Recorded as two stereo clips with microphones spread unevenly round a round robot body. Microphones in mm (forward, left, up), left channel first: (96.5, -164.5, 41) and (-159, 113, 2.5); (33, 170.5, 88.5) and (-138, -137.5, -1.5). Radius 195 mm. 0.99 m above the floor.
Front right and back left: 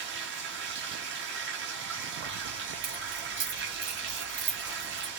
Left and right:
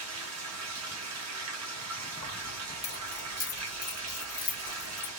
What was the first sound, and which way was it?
Running water, 165° right.